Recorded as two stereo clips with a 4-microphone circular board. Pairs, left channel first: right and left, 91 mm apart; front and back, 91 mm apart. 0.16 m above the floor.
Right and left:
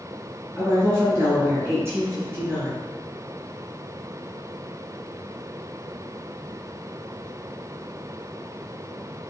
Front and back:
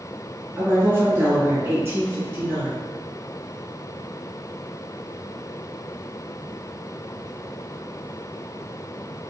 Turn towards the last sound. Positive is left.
turn(degrees=135)